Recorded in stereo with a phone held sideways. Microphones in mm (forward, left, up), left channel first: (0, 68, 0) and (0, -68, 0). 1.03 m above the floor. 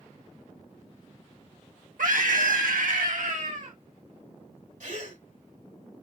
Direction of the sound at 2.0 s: 85° right.